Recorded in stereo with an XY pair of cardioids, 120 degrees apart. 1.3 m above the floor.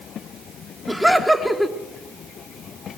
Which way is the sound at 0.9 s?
Straight ahead.